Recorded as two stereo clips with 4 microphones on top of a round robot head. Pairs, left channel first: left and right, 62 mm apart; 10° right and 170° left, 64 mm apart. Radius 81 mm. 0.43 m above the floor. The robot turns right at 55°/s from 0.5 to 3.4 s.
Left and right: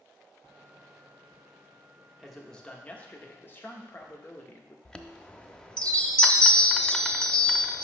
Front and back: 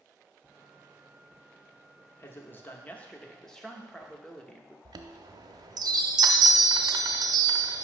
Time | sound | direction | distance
2.2 | a man speaking | straight ahead | 1.0 m
4.8 | a chime | 170° left | 0.5 m